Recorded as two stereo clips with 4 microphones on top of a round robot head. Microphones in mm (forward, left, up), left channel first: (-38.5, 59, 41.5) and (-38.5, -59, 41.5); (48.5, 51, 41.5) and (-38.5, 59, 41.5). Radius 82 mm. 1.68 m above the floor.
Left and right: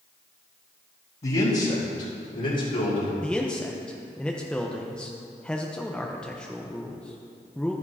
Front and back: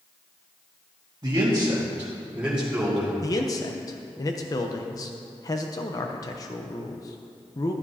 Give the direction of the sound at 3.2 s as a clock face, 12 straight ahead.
12 o'clock.